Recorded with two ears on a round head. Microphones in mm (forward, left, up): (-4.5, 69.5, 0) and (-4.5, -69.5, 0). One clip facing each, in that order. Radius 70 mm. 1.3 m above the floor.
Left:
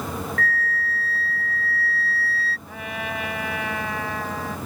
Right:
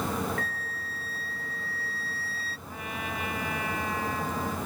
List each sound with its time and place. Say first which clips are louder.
0.4 s a flute: left 10 dB; 20° right (ahead or behind)
2.7 s a trumpet: left 5 dB; 60° left (ahead or behind)